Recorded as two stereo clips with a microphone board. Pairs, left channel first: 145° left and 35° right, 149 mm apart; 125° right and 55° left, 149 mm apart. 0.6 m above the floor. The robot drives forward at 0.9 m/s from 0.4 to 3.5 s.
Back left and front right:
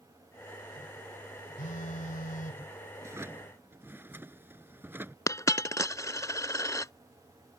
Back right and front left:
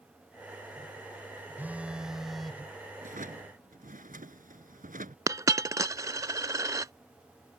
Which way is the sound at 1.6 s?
130° left.